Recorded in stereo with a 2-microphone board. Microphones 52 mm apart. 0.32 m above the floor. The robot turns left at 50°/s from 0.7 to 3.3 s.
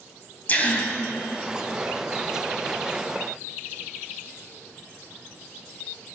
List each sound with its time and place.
0.5 s a gasp: 30° left (ahead or behind), 2 m; by 0.9 s 40° left (ahead or behind), 2 m